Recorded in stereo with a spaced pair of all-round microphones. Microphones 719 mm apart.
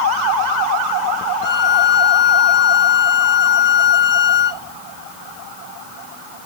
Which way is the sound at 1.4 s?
65° left (ahead or behind).